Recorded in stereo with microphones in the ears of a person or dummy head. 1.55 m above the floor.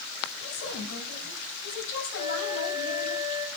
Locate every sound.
0.4 s a woman speaking: 60° left (ahead or behind), 6.5 m
2.1 s a flute: 50° left (ahead or behind), 3.5 m